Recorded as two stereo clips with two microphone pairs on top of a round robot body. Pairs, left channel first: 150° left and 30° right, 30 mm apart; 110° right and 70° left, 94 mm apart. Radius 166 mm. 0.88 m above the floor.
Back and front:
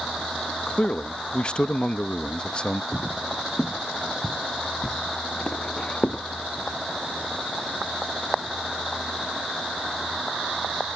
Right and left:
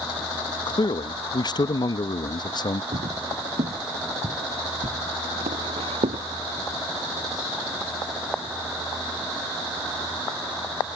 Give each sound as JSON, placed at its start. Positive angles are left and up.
{"t": 0.7, "sound": "a man speaking", "azimuth_deg": -150}
{"t": 2.9, "sound": "footsteps", "azimuth_deg": 70}